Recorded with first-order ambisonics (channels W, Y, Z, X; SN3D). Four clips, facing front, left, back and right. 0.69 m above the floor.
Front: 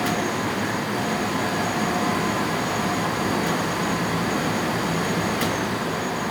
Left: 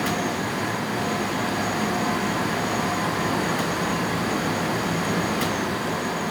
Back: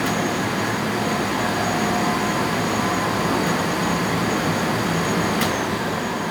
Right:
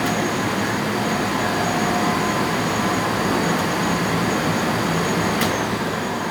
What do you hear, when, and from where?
Only background noise.